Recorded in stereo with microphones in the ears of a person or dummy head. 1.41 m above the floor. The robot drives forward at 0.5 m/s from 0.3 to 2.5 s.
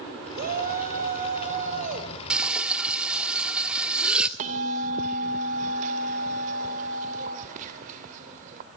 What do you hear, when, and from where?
0.3 s a shout: 50° right (ahead or behind), 4 m; by 2.1 s 40° right (ahead or behind), 4.5 m
2.3 s frying: 5° right (ahead or behind), 1.4 m; by 4.3 s 10° right (ahead or behind), 1.4 m
4.4 s a bell: 45° right (ahead or behind), 2.5 m